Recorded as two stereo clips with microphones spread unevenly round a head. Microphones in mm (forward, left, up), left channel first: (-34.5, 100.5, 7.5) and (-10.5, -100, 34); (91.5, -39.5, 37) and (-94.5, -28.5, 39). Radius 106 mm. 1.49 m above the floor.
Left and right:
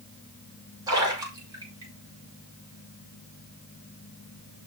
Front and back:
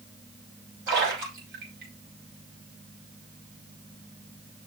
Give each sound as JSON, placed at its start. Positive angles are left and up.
{"t": 0.9, "sound": "a splash", "azimuth_deg": -155, "distance_m": 4.5}